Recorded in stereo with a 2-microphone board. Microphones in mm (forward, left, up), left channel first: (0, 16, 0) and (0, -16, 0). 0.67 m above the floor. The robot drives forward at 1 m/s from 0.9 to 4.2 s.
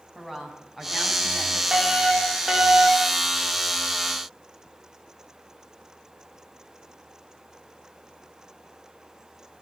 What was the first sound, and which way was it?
A woman speaking, 15° right (ahead or behind).